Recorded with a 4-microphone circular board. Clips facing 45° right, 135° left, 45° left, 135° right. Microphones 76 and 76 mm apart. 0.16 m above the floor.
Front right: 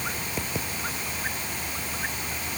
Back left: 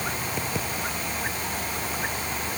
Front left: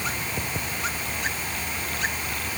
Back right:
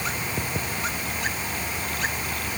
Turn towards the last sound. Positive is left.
No sound to turn to.